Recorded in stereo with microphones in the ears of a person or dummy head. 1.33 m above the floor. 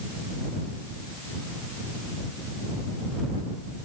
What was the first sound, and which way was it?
Only background noise.